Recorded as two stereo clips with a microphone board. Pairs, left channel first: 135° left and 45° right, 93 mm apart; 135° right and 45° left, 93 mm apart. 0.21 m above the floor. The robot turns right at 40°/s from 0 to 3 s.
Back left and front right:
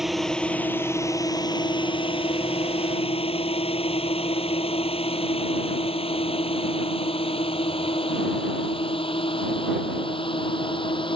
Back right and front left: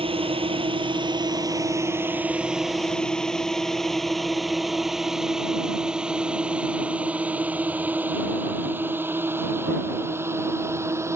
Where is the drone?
40° left; by 11.2 s 105° left.